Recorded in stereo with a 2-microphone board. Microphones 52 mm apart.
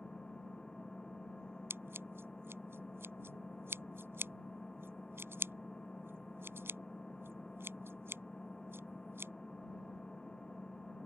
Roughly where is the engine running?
Centre.